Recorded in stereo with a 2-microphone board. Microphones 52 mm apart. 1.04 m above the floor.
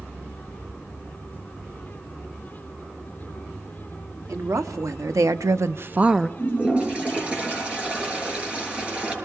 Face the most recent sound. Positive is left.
turn(degrees=-20)  # may be behind; listen again after turning